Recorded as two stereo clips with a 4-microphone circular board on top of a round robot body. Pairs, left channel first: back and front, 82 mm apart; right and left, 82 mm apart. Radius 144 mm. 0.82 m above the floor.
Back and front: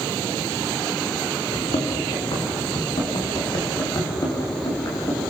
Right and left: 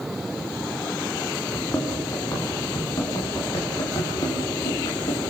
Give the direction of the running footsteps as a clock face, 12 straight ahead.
5 o'clock.